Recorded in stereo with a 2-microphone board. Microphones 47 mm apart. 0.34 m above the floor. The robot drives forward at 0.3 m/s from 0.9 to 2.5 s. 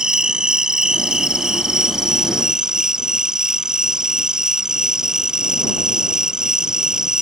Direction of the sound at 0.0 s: 15° right (ahead or behind).